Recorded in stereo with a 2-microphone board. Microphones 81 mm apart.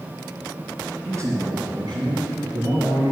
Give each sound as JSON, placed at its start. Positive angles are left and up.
{"t": 1.1, "sound": "a man speaking", "side_deg": -40, "distance_m": 2.5}